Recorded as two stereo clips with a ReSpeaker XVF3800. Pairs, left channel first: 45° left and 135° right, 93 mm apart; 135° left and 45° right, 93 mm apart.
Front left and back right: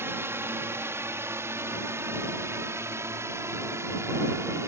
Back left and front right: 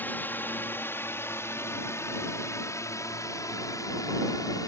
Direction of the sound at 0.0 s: 175° right.